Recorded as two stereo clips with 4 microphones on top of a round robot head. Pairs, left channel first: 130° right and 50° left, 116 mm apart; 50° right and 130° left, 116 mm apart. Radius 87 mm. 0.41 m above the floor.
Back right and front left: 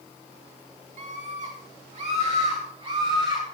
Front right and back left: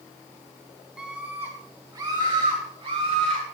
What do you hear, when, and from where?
1.0 s a scream: 45° left, 3.5 m; by 3.4 s 100° left, 5 m